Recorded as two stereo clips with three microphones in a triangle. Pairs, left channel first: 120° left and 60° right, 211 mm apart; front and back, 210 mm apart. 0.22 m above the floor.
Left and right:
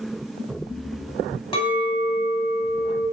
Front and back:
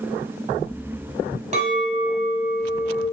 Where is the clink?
160° left, 0.6 m.